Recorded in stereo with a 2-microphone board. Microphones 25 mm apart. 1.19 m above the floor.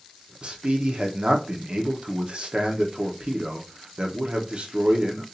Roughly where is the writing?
No writing in this recording.